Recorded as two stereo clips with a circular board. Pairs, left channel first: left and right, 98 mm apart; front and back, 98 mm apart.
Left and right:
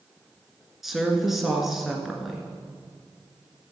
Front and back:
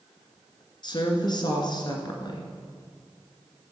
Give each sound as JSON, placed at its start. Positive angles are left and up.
{"t": 0.8, "sound": "a woman speaking", "azimuth_deg": -5, "distance_m": 1.9}